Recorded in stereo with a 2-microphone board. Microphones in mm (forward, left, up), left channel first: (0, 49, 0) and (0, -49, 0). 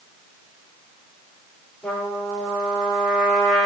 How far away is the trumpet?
About 4 m.